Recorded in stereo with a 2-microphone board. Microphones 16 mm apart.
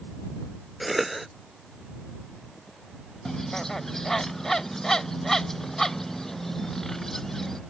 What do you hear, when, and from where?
0.8 s a cough: centre (ahead or behind)
3.2 s a bird: 20° left (ahead or behind)